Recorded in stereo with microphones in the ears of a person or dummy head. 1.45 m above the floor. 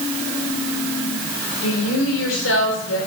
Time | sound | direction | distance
1.6 | a woman speaking | 85° left | 5.5 m